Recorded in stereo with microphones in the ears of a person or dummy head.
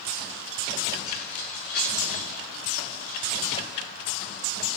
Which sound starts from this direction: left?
Keys jangling, at 1.1 s.